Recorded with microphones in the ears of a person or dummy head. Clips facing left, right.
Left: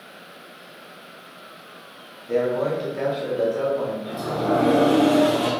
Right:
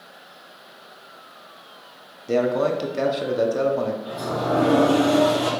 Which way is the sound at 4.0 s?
30° left (ahead or behind).